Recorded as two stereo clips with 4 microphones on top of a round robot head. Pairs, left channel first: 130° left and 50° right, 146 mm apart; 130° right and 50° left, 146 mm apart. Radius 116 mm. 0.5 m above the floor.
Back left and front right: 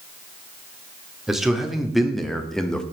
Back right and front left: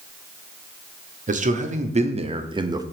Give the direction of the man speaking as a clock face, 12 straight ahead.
11 o'clock.